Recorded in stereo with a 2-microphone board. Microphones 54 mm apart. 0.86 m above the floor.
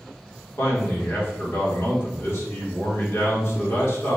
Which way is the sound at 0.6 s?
50° left (ahead or behind).